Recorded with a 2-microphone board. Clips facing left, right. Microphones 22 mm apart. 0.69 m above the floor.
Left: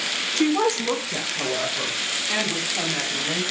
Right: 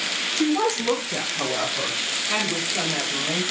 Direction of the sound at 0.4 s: 20° left (ahead or behind).